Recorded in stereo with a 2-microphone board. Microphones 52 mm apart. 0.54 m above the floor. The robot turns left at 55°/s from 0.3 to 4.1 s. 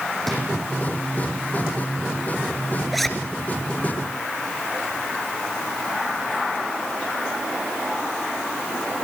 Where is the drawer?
5° left (ahead or behind), 10 m; by 0.4 s centre (ahead or behind), 10 m.